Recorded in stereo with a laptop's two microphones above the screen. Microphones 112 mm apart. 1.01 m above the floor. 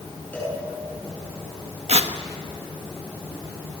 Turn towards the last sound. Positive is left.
turn(degrees=-70)  # may be behind; listen again after turning